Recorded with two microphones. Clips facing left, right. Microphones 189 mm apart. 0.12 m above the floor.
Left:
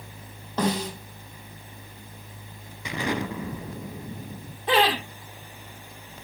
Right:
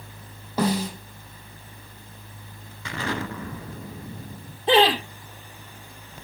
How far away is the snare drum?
About 5 m.